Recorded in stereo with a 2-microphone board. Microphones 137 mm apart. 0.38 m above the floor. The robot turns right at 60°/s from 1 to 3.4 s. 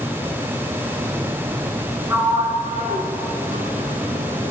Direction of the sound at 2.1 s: 20° right (ahead or behind).